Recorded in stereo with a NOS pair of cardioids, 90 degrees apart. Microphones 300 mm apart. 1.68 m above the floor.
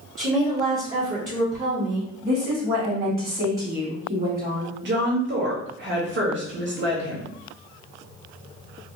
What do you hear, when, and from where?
0.2 s a woman speaking: 25° right, 1.0 m
2.2 s a woman speaking: 30° right, 1.4 m
4.8 s a woman speaking: 40° right, 1.2 m